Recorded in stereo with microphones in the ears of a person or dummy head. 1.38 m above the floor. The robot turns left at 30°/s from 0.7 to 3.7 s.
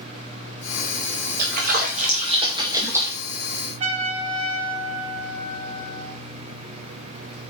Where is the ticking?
I don't hear ticking.